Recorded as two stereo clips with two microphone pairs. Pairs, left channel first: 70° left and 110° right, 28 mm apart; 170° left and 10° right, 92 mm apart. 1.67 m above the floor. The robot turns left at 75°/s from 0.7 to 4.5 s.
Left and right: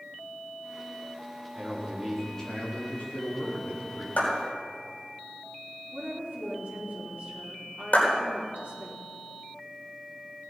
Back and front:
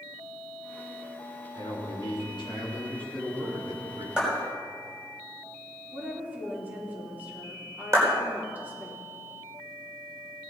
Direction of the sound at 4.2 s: 70° left.